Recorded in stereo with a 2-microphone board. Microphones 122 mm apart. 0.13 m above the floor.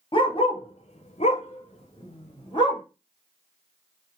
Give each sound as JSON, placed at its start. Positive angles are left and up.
{"t": 0.1, "sound": "a dog barking", "side_deg": 45, "distance_m": 0.9}